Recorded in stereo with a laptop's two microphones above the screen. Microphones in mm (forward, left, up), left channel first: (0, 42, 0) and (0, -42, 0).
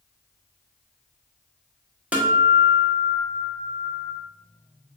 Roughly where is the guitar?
Centre.